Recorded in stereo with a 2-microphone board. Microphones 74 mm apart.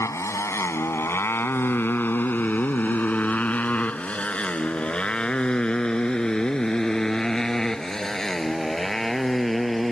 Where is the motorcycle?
45° left (ahead or behind); by 9.9 s 5° left (ahead or behind).